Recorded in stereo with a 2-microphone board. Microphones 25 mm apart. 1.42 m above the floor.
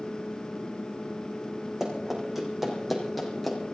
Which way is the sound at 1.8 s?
20° right (ahead or behind).